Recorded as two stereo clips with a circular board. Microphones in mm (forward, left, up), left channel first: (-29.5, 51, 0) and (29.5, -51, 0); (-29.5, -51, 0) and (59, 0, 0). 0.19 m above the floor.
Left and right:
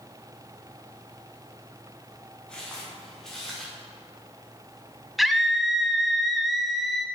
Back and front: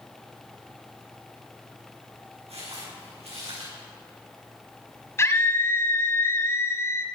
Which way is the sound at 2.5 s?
40° left.